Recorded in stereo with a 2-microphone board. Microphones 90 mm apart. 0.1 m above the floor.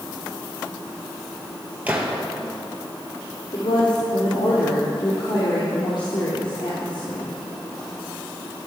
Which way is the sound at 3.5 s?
55° left (ahead or behind).